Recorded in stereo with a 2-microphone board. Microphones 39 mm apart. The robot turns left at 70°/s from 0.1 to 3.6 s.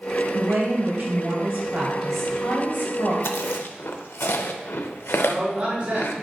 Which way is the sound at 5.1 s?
25° right (ahead or behind).